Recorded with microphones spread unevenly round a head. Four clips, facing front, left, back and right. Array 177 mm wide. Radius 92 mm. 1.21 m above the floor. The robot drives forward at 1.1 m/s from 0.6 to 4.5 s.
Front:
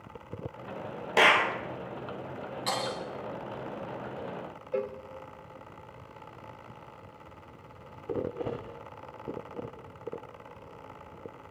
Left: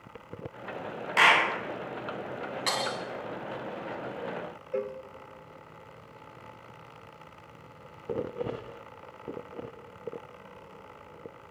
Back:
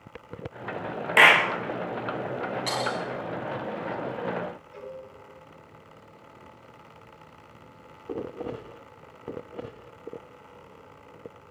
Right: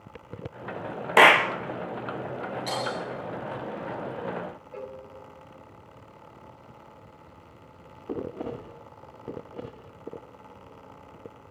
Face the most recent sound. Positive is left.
turn(degrees=45)